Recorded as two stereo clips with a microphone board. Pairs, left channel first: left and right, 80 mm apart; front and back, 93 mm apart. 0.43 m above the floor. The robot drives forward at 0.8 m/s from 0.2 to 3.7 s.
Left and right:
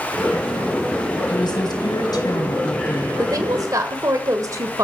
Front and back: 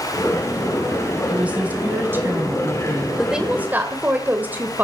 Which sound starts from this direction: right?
A woman speaking, at 3.2 s.